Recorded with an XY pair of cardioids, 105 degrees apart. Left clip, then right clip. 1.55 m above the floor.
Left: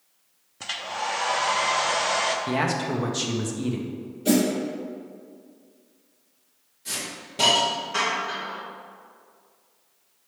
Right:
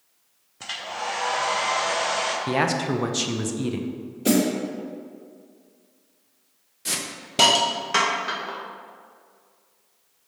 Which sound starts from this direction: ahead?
A hair dryer, at 0.6 s.